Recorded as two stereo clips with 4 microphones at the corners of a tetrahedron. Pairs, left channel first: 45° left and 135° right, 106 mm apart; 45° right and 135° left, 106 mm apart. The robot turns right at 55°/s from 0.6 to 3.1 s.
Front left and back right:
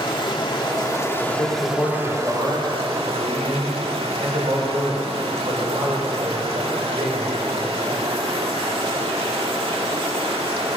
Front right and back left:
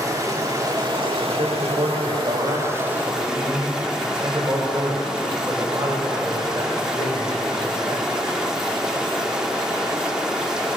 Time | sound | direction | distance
0.0 | running water | 80° left | 1.8 m
1.3 | a man speaking | 95° left | 4.5 m